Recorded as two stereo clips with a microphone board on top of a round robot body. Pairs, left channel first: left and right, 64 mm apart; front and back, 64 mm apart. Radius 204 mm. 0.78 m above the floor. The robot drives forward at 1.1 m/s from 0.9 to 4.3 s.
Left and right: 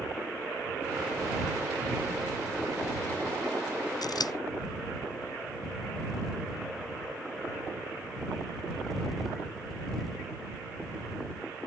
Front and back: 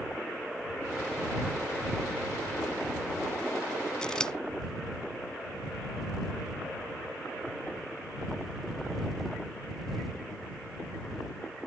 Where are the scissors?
75° left; by 4.3 s 80° left.